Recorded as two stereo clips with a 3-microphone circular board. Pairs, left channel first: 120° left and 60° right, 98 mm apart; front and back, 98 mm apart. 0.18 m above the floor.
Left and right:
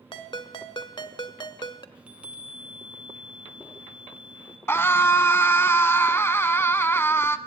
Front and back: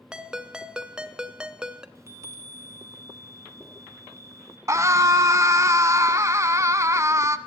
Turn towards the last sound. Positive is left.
turn(degrees=165)